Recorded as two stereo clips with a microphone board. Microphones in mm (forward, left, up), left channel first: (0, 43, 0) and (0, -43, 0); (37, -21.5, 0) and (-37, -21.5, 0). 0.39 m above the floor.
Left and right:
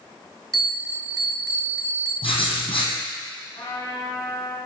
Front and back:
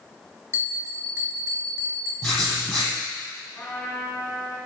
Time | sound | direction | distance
0.5 | a bell | 130° right | 2 m
2.2 | writing | 75° left | 2.5 m
3.5 | a trumpet | 60° left | 4 m